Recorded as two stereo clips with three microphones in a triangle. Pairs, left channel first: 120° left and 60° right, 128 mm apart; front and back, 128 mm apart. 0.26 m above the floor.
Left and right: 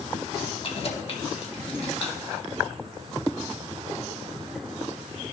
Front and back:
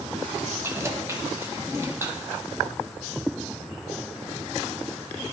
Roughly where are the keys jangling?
Behind left.